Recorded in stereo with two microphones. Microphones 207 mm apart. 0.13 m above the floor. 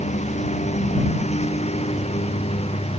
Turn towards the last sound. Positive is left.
turn(degrees=30)  # may be behind; listen again after turning